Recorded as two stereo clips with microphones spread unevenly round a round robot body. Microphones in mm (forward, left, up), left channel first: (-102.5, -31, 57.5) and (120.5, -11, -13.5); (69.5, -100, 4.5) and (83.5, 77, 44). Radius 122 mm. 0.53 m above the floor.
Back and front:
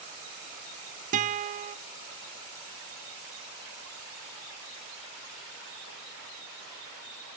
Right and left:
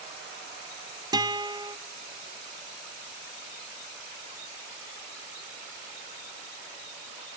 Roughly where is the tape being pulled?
No tape being pulled in this recording.